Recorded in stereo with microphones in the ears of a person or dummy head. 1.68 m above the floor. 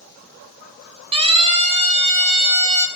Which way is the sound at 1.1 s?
30° right (ahead or behind).